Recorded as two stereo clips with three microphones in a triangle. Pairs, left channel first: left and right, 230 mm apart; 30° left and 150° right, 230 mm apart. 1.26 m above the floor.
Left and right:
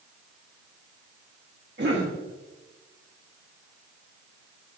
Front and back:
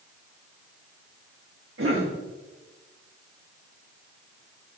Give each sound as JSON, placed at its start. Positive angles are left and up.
{"t": 1.8, "sound": "a cough", "azimuth_deg": -130, "distance_m": 1.5}